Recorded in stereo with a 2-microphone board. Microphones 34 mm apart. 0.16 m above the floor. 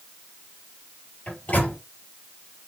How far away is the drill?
No drill in this recording.